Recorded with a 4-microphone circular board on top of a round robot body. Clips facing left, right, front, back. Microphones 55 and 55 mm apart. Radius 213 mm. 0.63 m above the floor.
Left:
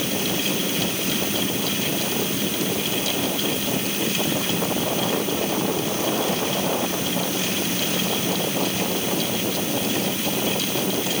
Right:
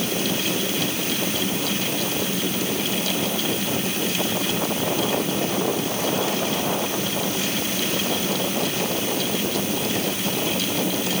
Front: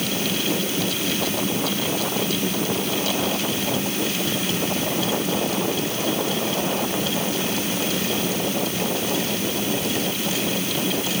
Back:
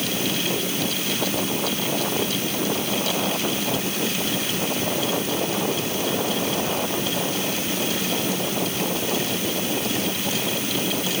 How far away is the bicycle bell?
I don't hear a bicycle bell.